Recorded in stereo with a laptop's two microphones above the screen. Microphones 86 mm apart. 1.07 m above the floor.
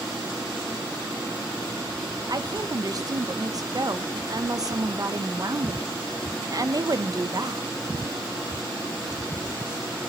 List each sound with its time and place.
2.3 s a woman speaking: 45° right (ahead or behind), 0.7 m